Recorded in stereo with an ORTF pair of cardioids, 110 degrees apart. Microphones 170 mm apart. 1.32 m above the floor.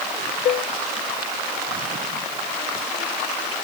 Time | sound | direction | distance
0.5 | dishes clattering | 50° left | ?